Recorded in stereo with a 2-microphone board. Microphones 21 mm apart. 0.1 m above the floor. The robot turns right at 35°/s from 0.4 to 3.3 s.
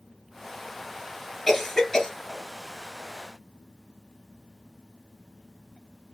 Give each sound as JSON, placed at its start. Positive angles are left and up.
{"t": 1.5, "sound": "a cough", "side_deg": 15, "distance_m": 1.5}